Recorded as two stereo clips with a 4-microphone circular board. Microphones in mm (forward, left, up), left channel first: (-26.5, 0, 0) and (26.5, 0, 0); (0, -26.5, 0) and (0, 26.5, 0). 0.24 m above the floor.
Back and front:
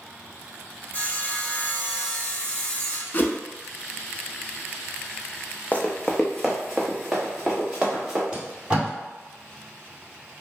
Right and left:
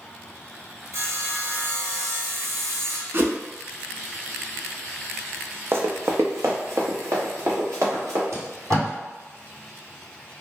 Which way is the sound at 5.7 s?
125° left.